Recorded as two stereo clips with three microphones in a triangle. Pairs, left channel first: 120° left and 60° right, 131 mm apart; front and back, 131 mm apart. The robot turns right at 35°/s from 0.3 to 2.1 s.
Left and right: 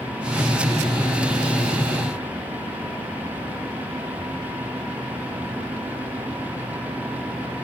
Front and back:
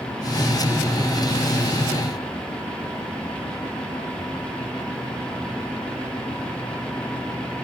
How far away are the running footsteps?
I don't hear running footsteps.